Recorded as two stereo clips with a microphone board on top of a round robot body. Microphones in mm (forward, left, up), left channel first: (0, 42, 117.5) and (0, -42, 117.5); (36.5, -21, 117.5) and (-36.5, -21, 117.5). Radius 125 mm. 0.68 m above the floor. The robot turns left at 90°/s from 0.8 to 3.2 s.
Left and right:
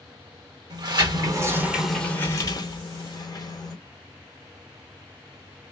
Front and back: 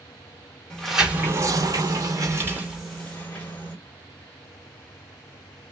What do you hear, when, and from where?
0.7 s a sliding door: 80° right, 1.8 m; by 3.8 s 60° left, 1.8 m